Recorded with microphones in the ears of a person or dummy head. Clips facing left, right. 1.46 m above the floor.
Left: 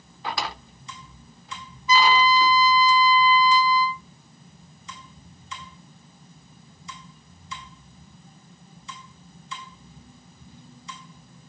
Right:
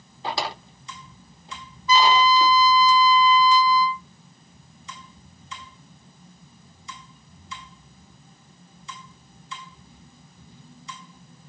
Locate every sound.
0.2 s a drawer: 20° right (ahead or behind), 0.7 m
1.9 s a trumpet: 65° right (ahead or behind), 2.5 m